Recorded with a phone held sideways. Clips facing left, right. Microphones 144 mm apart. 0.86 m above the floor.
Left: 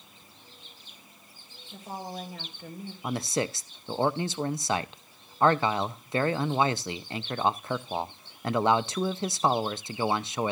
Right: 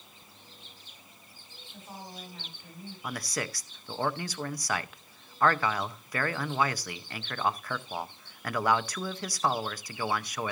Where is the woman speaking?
80° left, 4 m.